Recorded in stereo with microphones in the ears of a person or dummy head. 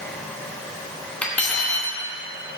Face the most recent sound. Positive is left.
turn(degrees=5)  # may be behind; listen again after turning